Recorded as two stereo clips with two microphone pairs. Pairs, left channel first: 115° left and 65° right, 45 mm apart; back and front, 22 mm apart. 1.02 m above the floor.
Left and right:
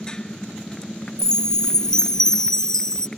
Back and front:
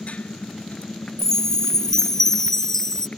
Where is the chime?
165° left.